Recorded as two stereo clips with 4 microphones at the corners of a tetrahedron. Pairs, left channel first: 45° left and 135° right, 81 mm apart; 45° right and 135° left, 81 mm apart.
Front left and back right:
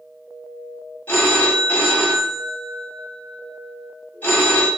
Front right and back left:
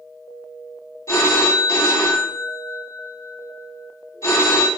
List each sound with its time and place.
1.1 s a phone ringing: 15° right, 1.0 m